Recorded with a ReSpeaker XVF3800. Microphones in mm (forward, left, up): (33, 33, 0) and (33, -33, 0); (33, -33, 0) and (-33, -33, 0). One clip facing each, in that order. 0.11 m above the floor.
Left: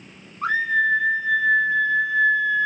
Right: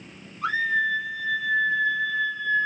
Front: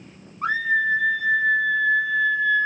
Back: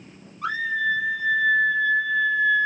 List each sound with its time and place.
0.4 s a scream: 55° left, 1.8 m; by 2.7 s 140° left, 1.0 m